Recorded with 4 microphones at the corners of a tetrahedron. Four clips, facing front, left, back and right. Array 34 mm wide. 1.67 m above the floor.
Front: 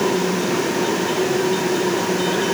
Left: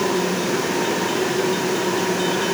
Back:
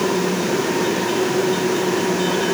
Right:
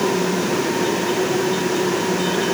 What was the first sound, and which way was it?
Only background noise.